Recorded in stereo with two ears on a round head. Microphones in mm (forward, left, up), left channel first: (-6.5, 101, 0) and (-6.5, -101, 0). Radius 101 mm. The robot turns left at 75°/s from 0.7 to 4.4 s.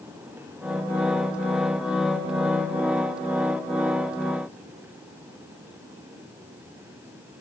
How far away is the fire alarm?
I don't hear a fire alarm.